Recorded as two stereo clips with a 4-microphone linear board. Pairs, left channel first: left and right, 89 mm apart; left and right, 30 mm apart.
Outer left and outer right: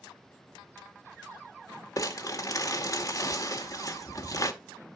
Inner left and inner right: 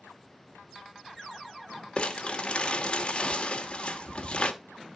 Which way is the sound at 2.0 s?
40° left (ahead or behind).